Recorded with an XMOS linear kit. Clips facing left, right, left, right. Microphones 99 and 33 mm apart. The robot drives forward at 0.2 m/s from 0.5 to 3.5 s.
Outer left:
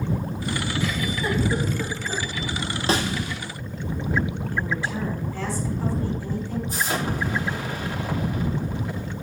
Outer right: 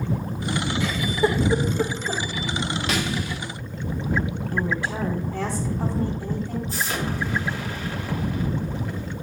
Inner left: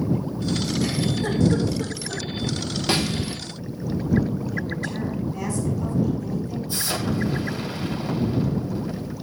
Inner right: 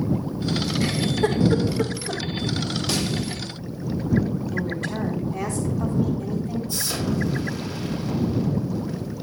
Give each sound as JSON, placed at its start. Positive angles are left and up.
{"t": 0.8, "sound": "a giggle", "side_deg": -80, "distance_m": 4.5}
{"t": 2.9, "sound": "a snare drum", "side_deg": 30, "distance_m": 1.6}
{"t": 4.5, "sound": "a woman speaking", "side_deg": -70, "distance_m": 4.0}
{"t": 6.7, "sound": "an explosion", "side_deg": 15, "distance_m": 3.0}